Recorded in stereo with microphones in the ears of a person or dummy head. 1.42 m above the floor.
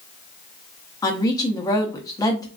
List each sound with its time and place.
1.0 s a woman speaking: 15° left (ahead or behind), 0.5 m